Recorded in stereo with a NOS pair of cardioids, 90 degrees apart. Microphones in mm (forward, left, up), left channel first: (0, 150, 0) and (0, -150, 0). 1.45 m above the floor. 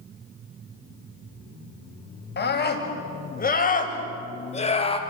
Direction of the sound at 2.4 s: 35° left.